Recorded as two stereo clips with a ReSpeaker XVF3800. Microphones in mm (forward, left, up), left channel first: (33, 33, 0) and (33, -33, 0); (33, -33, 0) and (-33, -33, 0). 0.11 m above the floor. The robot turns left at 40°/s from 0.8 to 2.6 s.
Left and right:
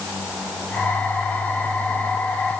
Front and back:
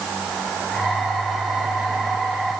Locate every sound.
Only background noise.